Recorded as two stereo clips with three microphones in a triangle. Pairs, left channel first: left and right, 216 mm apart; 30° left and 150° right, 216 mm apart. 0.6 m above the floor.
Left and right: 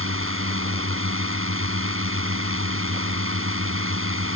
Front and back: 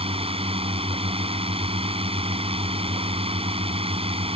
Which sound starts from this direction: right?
A drone, at 0.0 s.